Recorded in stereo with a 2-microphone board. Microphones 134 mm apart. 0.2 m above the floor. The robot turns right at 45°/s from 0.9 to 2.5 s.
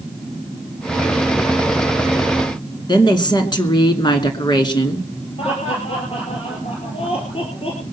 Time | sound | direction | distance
2.9 | a woman speaking | 35° left (ahead or behind) | 2.5 m
5.4 | laughter | 45° left (ahead or behind) | 4 m